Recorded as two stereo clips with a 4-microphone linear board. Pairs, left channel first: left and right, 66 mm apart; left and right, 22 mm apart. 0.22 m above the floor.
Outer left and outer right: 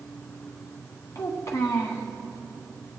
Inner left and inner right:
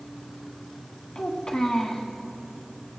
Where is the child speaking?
50° left (ahead or behind), 1.6 m.